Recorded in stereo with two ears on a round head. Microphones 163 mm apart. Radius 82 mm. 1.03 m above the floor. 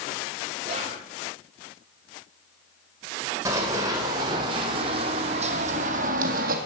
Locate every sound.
0.6 s whispering: 35° right (ahead or behind), 2.5 m
3.5 s running footsteps: 15° right (ahead or behind), 3 m; by 6.6 s 50° right (ahead or behind), 2 m